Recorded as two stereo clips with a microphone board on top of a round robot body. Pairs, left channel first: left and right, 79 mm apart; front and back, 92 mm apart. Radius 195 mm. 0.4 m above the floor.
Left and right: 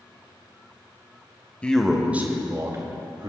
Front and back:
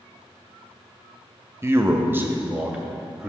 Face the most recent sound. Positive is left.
turn(degrees=-100)